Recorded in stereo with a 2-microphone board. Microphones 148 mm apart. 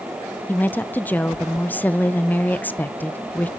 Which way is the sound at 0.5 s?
10° left (ahead or behind).